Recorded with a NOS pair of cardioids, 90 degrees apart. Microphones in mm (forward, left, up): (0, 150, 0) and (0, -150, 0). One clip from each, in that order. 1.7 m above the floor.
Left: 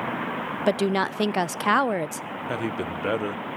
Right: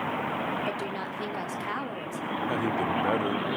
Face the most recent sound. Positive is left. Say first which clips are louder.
# right 1 dB
turn(degrees=20)